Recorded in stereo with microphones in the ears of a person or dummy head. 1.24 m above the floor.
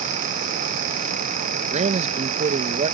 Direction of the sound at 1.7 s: 30° right (ahead or behind).